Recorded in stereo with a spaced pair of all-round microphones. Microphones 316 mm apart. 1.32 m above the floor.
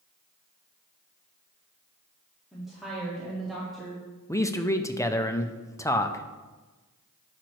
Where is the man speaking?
10° left (ahead or behind), 0.5 m.